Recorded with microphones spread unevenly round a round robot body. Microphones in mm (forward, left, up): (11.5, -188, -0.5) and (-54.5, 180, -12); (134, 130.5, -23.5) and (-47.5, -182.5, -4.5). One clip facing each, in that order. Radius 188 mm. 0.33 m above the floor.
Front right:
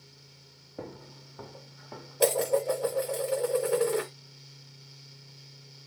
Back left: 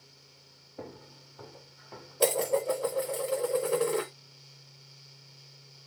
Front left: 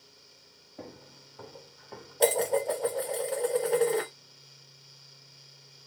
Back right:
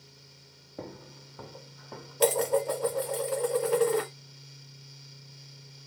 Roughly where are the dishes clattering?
Behind.